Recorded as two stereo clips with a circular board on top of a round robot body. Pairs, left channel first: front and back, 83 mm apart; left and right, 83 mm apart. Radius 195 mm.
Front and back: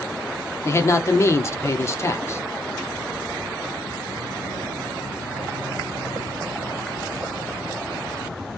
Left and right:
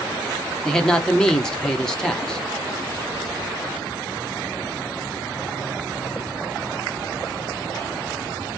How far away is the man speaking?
About 1.1 m.